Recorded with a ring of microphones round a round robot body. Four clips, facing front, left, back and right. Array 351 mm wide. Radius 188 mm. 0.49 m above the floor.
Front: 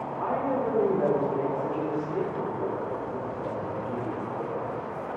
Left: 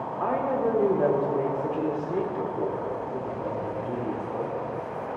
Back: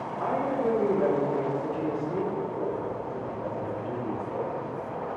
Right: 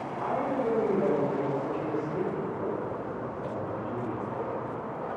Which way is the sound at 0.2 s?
95° left.